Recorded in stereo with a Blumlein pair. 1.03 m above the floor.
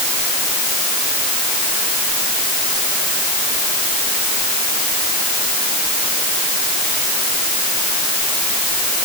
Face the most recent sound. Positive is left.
No sound to turn to.